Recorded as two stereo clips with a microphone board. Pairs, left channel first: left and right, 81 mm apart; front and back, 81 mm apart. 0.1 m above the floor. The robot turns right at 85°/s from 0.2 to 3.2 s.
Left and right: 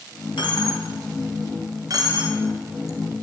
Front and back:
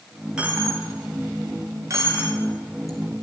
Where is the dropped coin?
100° left, 1.3 m; by 3.0 s 35° right, 1.3 m.